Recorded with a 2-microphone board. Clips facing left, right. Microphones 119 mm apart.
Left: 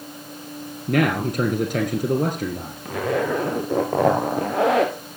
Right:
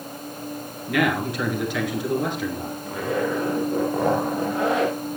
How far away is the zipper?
About 3 m.